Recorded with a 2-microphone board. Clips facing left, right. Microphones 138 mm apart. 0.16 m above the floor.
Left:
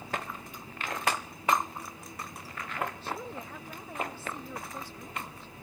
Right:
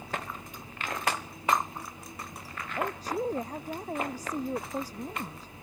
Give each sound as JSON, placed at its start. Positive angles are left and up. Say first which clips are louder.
{"t": 2.8, "sound": "a woman speaking", "louder": "right 5 dB", "side_deg": -40}